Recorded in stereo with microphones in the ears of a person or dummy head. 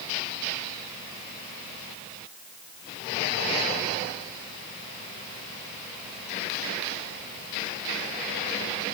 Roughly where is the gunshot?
No gunshot in this recording.